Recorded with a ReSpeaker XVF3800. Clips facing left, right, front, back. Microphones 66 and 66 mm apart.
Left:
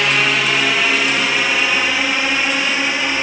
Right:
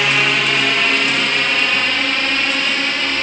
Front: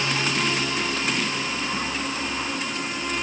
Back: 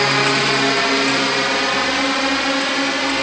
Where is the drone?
Straight behind; by 3.2 s 170° left.